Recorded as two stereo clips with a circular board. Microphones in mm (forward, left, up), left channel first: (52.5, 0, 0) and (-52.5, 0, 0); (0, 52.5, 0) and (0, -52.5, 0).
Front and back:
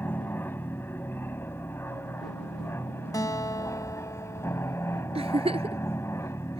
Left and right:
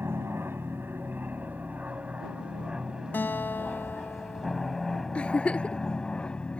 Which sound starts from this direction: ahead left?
A guitar, at 3.1 s.